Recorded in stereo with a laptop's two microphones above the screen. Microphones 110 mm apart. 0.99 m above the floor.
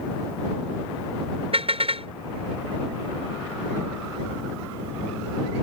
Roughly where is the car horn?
Right.